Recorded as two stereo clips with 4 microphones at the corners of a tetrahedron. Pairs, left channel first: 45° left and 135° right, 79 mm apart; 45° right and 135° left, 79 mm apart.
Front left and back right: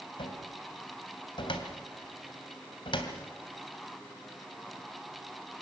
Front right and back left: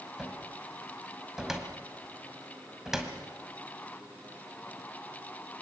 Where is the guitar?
No guitar in this recording.